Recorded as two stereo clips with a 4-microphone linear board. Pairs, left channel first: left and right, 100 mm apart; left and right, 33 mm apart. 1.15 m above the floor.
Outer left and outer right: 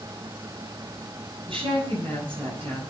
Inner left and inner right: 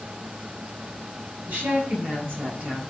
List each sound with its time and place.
1.5 s a woman speaking: 65° right (ahead or behind), 9.5 m